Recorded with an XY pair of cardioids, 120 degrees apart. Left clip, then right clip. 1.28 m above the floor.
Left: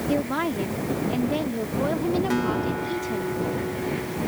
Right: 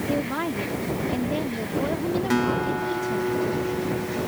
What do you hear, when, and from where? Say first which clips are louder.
0.1 s a woman speaking: left 2 dB; 10° left
2.3 s a guitar: right 2 dB; 20° right